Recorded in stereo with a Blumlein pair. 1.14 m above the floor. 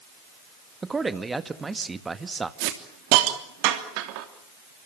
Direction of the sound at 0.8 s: 10° right.